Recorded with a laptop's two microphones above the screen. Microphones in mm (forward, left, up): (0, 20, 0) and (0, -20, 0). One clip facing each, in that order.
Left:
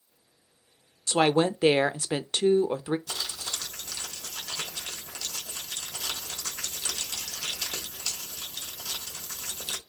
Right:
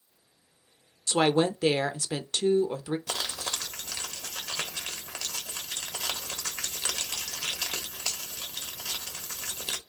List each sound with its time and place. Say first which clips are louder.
1.1 s a woman speaking: left 1 dB; 25° left (ahead or behind), 0.5 m
3.1 s crumpling: right 2 dB; 80° right, 1.0 m